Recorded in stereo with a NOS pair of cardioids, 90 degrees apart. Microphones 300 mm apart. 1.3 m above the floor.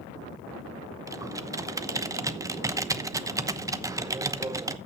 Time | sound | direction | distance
1.1 | typing on a keyboard | 10° right | 0.9 m